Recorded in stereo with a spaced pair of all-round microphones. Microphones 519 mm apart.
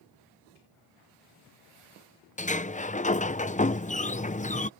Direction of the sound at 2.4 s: 15° left (ahead or behind).